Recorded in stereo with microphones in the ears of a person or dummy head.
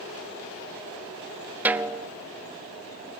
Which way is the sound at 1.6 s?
10° right (ahead or behind).